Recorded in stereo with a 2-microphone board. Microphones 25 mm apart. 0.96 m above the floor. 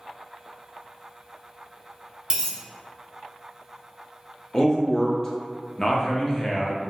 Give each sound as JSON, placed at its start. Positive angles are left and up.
{"t": 2.3, "sound": "a dropped coin", "side_deg": -25, "distance_m": 1.0}
{"t": 4.5, "sound": "a man speaking", "side_deg": 20, "distance_m": 0.6}